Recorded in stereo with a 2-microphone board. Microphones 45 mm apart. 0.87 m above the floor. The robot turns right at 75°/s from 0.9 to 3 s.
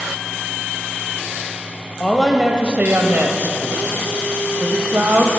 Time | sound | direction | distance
2.0 | a woman speaking | 165° left | 0.6 m